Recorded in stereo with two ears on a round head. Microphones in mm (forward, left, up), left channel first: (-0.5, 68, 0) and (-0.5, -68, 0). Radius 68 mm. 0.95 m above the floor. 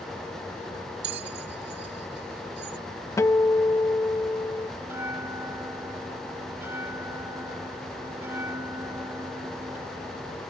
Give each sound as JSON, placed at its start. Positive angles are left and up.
{"t": 1.0, "sound": "a bell", "side_deg": -85}
{"t": 3.2, "sound": "a guitar", "side_deg": 20}
{"t": 4.8, "sound": "a bell", "side_deg": -15}